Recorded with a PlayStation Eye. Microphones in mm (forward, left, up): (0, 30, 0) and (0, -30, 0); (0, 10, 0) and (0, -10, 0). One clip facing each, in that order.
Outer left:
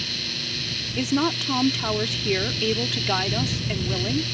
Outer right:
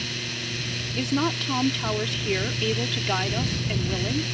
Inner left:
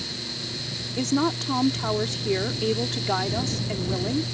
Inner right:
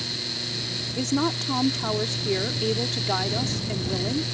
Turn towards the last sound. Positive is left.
turn(degrees=5)  # may be behind; listen again after turning